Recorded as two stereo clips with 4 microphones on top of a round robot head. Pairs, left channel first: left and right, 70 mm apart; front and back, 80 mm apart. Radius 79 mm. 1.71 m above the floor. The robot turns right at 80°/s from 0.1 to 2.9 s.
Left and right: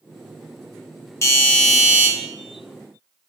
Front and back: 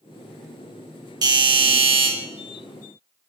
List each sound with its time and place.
1.2 s a doorbell: 140° left, 0.8 m; by 2.1 s 150° right, 0.8 m